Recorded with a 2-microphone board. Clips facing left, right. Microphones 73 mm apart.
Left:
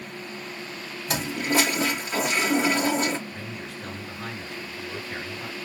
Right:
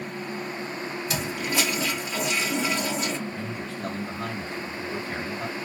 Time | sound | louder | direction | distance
1.1 | a toilet flushing | left 6 dB | 40° left (ahead or behind) | 1.0 m
3.3 | a man speaking | right 4 dB | 50° right (ahead or behind) | 2 m